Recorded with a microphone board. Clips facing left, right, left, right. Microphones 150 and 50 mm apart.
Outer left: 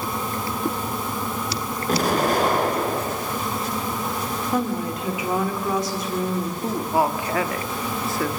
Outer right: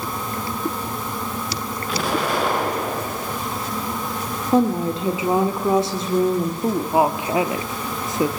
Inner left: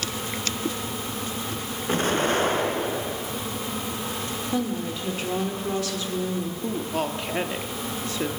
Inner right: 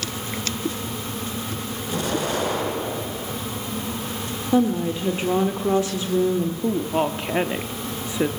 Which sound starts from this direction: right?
A woman speaking, at 4.5 s.